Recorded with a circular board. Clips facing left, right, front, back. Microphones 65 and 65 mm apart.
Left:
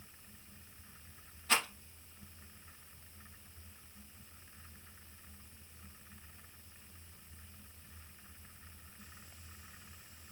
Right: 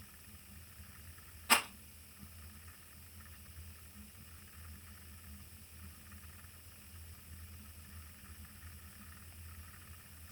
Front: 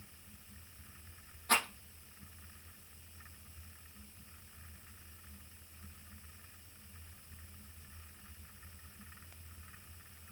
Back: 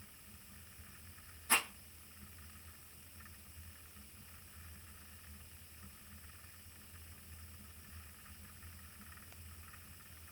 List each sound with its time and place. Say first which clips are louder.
1.5 s a rattle: right 2 dB, front 3 dB; 5° right, 4.5 m